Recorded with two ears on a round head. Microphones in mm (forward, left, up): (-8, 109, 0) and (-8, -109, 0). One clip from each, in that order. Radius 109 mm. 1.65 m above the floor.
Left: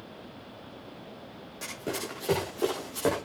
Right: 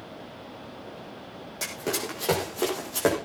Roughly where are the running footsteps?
Right.